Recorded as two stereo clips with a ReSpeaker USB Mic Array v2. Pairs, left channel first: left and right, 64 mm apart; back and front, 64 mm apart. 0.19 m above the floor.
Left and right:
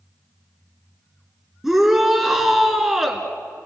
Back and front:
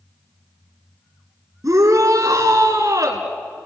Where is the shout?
5° right, 2 m.